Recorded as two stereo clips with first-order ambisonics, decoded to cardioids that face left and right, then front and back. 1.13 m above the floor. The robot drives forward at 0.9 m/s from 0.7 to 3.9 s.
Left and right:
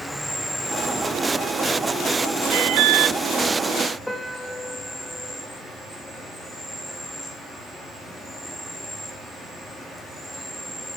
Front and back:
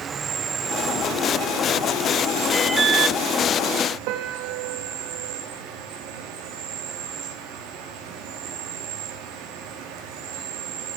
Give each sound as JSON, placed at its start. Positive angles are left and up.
{"t": 0.0, "sound": "an insect", "azimuth_deg": 180, "distance_m": 1.0}
{"t": 2.5, "sound": "an alarm", "azimuth_deg": -80, "distance_m": 0.5}
{"t": 4.1, "sound": "a piano", "azimuth_deg": 175, "distance_m": 1.5}